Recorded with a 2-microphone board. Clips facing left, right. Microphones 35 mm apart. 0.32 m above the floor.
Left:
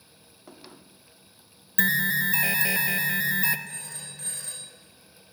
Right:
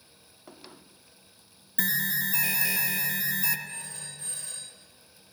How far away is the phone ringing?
About 2.5 m.